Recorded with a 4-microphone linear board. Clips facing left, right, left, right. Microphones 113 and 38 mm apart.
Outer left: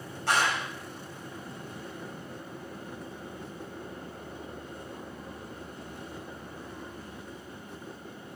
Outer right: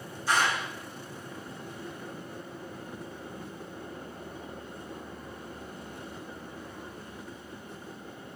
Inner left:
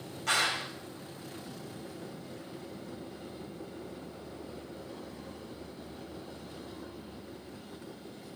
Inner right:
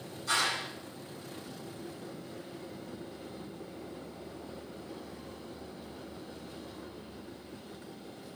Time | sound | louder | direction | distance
0.3 | a clap | even, inner left 1 dB | 65° left (ahead or behind) | 7.5 m